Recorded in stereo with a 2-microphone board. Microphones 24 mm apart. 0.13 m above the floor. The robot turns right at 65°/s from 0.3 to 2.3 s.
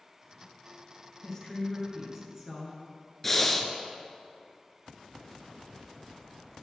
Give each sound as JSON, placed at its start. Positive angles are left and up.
{"t": 1.2, "sound": "a woman speaking", "azimuth_deg": 145, "distance_m": 1.7}
{"t": 3.2, "sound": "breathing", "side_deg": 10, "distance_m": 0.6}